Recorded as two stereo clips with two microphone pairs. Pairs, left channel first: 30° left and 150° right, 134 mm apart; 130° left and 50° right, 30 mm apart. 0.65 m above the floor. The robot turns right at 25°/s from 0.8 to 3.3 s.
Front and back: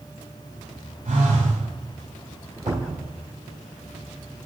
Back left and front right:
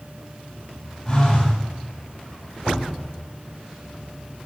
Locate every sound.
1.1 s a phone buzzing: 165° right, 4.5 m; by 1.6 s 150° right, 4.5 m
2.7 s a cupboard door: 140° right, 1.6 m; by 3.0 s 130° right, 1.6 m